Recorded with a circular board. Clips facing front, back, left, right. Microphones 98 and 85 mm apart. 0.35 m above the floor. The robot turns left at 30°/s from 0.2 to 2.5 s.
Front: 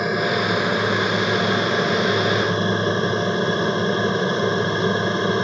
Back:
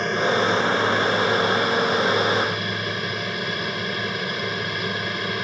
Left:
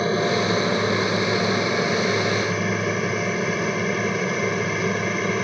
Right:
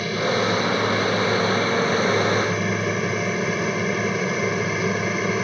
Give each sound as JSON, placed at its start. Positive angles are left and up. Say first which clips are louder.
{"t": 0.0, "sound": "an aircraft", "louder": "even, left 1 dB", "azimuth_deg": 75}